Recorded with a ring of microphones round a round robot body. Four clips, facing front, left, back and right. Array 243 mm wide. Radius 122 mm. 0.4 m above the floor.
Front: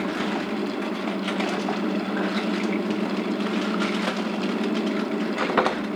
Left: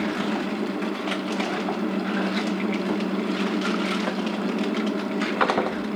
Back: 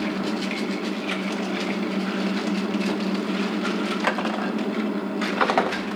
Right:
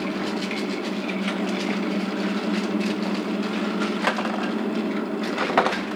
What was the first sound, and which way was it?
Only background noise.